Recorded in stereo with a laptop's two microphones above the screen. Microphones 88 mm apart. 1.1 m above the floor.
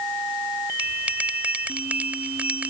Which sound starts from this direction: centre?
A bell, at 0.8 s.